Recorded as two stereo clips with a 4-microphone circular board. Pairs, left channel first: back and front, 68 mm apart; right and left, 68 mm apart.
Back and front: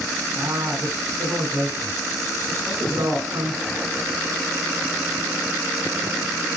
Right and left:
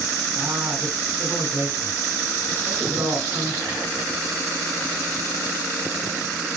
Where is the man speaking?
40° left, 3 m.